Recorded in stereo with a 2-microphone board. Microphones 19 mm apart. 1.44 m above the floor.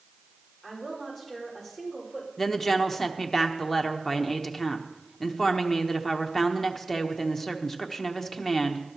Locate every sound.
0.6 s a woman speaking: 15° left (ahead or behind), 5 m
2.4 s a woman speaking: 20° left (ahead or behind), 1.1 m